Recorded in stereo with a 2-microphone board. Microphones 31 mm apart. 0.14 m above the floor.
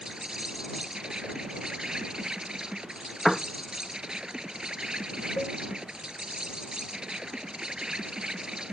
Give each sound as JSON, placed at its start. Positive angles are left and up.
{"t": 0.0, "sound": "an insect", "side_deg": -25}
{"t": 3.2, "sound": "a piano", "side_deg": 10}
{"t": 5.4, "sound": "a cowbell", "side_deg": 65}